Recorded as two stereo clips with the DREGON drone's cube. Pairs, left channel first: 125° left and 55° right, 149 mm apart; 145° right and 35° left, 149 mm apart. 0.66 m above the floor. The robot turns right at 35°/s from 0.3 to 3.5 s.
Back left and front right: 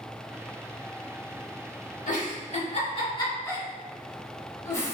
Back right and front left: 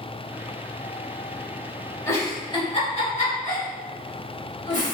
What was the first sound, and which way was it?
A giggle, 140° left.